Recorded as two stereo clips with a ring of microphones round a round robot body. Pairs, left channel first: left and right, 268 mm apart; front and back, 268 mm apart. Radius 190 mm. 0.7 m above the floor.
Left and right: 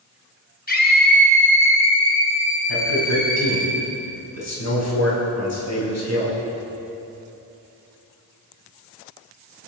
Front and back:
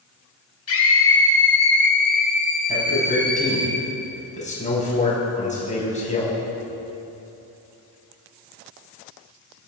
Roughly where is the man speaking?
Ahead left.